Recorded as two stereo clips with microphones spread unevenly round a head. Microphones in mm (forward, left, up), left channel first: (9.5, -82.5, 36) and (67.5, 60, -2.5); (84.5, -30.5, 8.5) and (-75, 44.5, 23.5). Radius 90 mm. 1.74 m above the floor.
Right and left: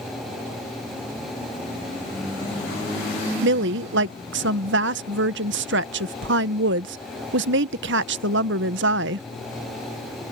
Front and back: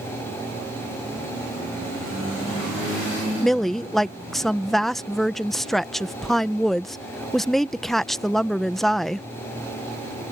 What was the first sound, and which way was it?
A woman speaking, 65° left.